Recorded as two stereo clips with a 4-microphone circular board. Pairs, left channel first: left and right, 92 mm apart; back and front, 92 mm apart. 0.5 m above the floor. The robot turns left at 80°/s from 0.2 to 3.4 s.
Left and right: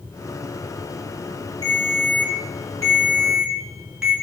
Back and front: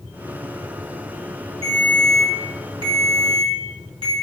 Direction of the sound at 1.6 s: 135° left.